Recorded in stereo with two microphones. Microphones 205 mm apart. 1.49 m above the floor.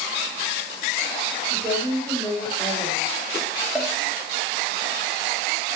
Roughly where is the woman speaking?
Centre.